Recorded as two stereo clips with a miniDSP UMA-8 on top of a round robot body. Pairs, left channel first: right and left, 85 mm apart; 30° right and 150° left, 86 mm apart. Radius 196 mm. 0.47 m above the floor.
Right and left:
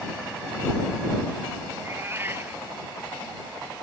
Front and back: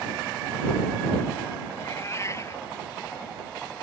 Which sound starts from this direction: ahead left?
A cat meowing, at 1.7 s.